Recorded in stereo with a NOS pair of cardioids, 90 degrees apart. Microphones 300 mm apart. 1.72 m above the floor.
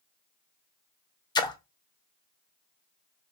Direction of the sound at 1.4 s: 15° left.